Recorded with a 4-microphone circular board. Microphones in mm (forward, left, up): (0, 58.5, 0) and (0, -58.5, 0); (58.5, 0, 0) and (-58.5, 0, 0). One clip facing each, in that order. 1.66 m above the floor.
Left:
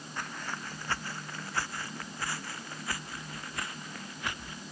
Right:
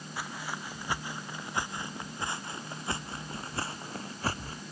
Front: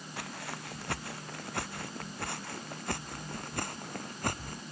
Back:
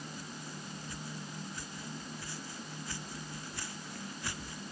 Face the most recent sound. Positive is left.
turn(degrees=-35)